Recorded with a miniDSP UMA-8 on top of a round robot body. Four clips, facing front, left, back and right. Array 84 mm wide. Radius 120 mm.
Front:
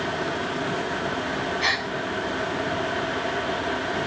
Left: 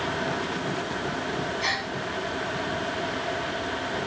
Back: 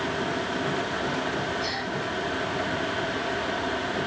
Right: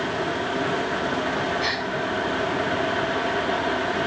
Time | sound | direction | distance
1.6 | a gasp | 15° right | 2.5 m